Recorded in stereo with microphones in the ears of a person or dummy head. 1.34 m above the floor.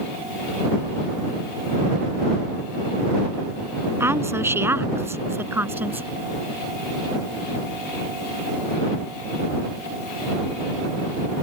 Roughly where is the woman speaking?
Centre.